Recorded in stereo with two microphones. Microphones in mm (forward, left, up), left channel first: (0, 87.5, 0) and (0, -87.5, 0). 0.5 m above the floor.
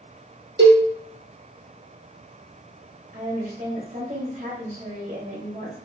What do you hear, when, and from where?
0.6 s a cowbell: 80° right, 2.5 m
3.1 s a woman speaking: 50° right (ahead or behind), 2.5 m